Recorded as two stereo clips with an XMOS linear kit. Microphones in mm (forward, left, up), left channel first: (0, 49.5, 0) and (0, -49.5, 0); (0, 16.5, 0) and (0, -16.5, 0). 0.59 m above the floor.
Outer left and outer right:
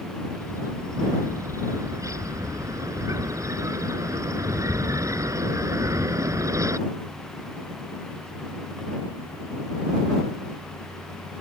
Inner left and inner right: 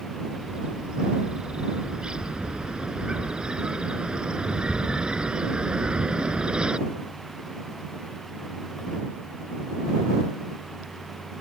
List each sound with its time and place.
0.3 s a bird: 35° right (ahead or behind)